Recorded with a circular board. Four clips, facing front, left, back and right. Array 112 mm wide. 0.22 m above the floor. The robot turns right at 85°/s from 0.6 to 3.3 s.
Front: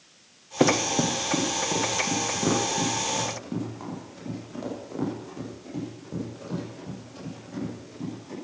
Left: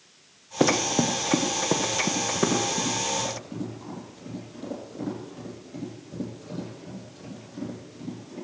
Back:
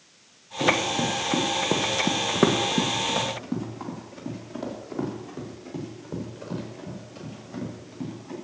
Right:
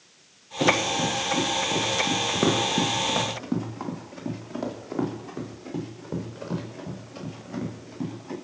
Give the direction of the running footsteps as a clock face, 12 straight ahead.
11 o'clock.